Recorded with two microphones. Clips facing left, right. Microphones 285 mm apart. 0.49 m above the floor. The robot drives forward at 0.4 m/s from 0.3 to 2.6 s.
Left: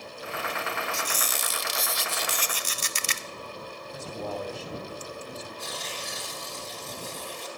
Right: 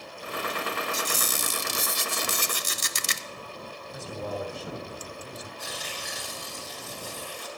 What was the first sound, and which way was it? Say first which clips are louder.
A squeak: right 2 dB; 40° right (ahead or behind).